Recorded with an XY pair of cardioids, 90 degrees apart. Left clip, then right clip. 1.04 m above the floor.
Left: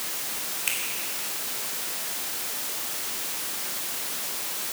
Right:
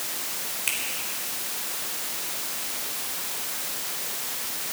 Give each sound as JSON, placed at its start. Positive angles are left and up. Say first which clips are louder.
{"t": 0.7, "sound": "a finger snap", "louder": "right 1 dB", "azimuth_deg": -5, "distance_m": 3.5}